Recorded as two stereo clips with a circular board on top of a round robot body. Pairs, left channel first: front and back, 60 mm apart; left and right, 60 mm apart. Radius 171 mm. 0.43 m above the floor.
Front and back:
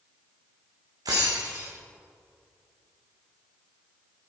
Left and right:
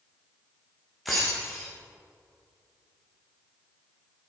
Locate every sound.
1.1 s breaking glass: straight behind, 3.5 m